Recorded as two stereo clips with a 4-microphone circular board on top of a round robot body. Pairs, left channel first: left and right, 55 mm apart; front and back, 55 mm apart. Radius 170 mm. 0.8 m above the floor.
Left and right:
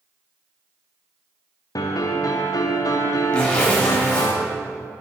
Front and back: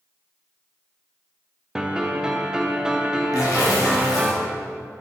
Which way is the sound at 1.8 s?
105° left.